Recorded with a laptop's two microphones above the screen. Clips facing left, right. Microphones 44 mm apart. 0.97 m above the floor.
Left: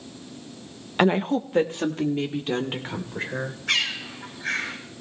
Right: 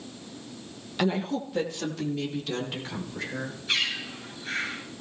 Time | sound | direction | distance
1.0 | a woman speaking | 40° left (ahead or behind) | 0.6 m
3.7 | a bird | 65° left (ahead or behind) | 8 m